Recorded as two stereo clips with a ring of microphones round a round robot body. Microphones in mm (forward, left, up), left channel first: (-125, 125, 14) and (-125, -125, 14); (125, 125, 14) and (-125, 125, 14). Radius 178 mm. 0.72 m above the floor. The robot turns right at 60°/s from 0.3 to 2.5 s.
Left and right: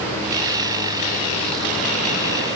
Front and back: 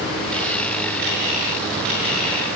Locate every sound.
Only background noise.